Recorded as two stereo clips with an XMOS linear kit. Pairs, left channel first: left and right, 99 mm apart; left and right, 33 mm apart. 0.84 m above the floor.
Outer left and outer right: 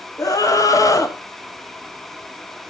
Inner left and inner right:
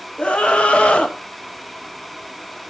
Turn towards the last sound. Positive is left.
turn(degrees=40)  # may be behind; listen again after turning